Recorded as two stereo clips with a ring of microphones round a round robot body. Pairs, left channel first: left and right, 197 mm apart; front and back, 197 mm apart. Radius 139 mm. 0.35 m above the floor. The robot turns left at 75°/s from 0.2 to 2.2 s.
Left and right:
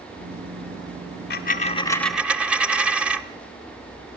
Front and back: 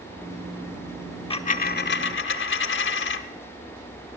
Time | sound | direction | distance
1.3 | a dropped coin | 60° left | 0.8 m